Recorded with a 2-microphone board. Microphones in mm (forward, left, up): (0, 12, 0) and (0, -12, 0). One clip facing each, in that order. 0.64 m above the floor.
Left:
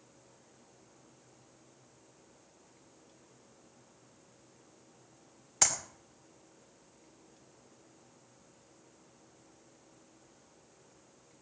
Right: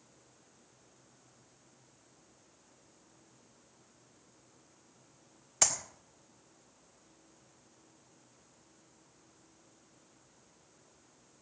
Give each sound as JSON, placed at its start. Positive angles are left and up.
{"t": 5.6, "sound": "a clap", "side_deg": 5, "distance_m": 2.0}